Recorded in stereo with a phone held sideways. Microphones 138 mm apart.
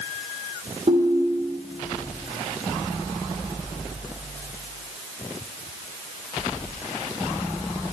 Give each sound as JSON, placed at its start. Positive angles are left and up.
{"t": 0.9, "sound": "a ringtone", "side_deg": -50, "distance_m": 1.5}